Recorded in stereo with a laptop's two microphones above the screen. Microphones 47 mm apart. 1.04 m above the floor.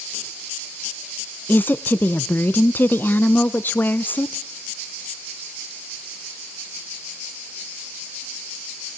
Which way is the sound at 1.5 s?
45° left (ahead or behind).